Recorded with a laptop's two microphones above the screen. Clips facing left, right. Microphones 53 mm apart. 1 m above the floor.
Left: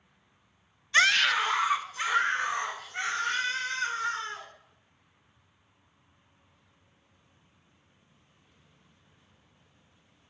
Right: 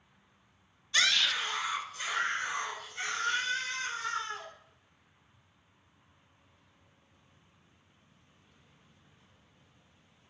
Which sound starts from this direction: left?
A scream, at 0.9 s.